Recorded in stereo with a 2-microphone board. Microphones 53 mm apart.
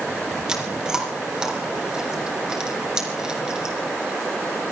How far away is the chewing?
About 3.5 m.